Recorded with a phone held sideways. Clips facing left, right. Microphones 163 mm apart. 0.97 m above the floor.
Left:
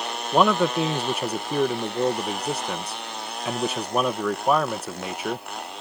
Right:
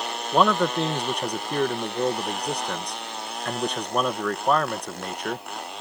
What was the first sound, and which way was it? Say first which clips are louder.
A man speaking: left 1 dB; 5° left (ahead or behind).